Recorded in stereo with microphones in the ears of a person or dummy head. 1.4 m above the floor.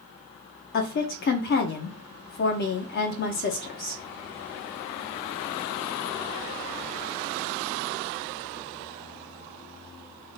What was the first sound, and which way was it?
A woman speaking, 50° left (ahead or behind).